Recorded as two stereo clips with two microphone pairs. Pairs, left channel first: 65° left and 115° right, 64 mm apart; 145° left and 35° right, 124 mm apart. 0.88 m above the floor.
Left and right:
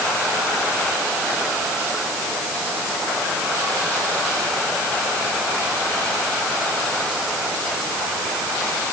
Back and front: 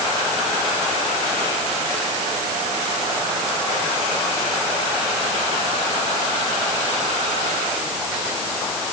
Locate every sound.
Only background noise.